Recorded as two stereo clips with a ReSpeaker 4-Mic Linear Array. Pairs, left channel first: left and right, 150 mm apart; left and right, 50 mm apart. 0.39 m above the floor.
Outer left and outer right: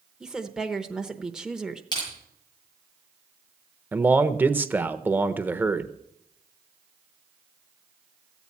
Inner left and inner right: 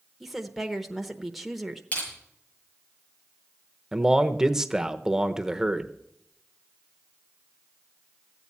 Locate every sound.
0.2 s a woman speaking: 5° right (ahead or behind), 0.9 m
1.9 s crushing: 30° left (ahead or behind), 7.5 m
3.9 s a man speaking: 10° right (ahead or behind), 0.8 m